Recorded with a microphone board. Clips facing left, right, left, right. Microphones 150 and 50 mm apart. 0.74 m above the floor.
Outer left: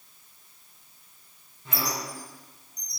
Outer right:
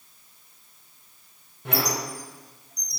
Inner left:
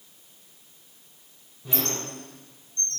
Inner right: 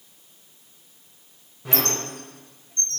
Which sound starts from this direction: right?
A squeak, at 1.6 s.